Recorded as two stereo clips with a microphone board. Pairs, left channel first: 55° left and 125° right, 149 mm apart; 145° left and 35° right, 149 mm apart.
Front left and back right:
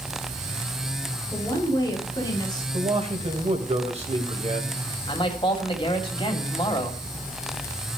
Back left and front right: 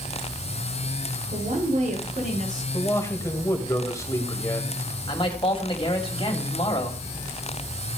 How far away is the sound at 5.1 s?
About 2 m.